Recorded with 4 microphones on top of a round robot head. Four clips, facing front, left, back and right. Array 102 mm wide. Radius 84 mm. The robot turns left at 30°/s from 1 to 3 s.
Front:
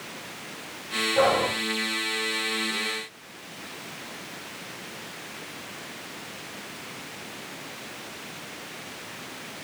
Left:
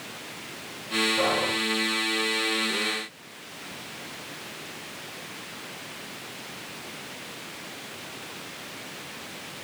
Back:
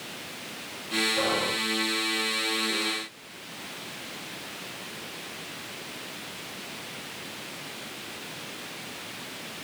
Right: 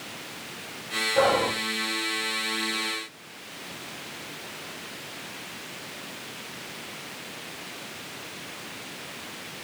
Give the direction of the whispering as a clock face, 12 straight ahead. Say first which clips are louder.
Right 6 dB, front 8 dB; 2 o'clock.